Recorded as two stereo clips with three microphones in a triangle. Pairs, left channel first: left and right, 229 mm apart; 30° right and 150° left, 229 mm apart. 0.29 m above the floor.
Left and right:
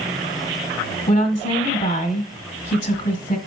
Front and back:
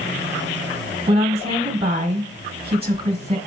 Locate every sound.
1.1 s a woman speaking: 110° left, 1.1 m